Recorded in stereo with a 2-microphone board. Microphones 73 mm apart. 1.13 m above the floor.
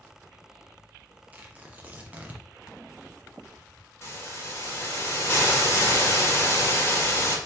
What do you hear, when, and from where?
1.3 s tearing paper: 20° right (ahead or behind), 0.6 m
4.0 s a hiss: 35° left (ahead or behind), 1.1 m